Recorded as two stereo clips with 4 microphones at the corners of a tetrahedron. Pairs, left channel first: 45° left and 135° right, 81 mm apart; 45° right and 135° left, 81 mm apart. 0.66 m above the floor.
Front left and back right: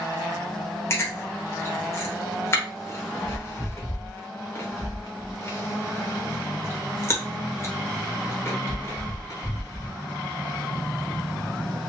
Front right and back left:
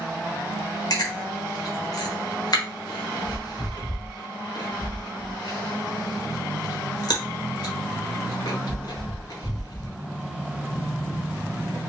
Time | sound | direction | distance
0.9 | chewing | 10° right | 1.2 m